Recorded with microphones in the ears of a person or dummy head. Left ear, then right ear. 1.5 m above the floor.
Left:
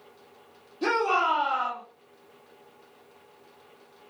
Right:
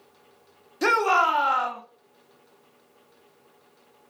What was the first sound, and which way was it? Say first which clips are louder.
A shout: right 4 dB; 60° right (ahead or behind).